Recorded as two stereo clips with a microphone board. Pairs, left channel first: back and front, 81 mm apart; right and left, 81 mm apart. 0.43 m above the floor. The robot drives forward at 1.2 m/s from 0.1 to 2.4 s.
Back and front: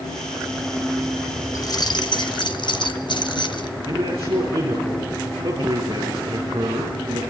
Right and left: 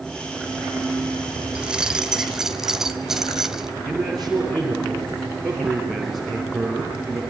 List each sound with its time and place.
1.6 s keys jangling: 160° left, 0.9 m; by 3.7 s 175° left, 1.7 m
3.9 s a man speaking: straight ahead, 6.5 m